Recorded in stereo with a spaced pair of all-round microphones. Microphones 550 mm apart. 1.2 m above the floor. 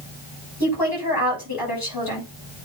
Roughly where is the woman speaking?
Left.